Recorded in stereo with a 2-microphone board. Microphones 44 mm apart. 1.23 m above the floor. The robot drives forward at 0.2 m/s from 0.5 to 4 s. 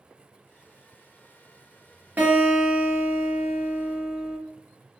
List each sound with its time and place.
2.2 s a guitar: 40° right (ahead or behind), 1.4 m; by 4.4 s 35° right (ahead or behind), 1.7 m